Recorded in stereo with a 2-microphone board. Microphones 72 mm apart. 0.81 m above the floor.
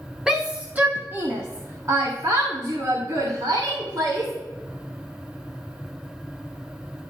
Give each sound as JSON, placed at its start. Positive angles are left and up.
{"t": 0.3, "sound": "a shout", "side_deg": -10, "distance_m": 0.7}